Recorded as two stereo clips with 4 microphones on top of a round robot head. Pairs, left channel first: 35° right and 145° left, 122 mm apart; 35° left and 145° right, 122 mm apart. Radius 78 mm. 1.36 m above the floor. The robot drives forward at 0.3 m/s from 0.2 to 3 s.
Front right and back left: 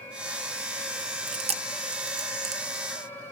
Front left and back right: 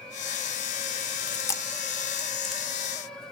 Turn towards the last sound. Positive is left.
turn(degrees=135)